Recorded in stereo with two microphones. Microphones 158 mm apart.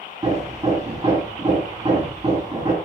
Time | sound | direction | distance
0.2 | hammering | 20° right (ahead or behind) | 8 m